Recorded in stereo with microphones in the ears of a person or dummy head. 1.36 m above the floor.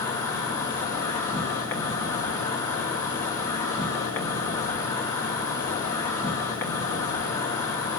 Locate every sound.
0.0 s an insect: 15° left (ahead or behind), 2 m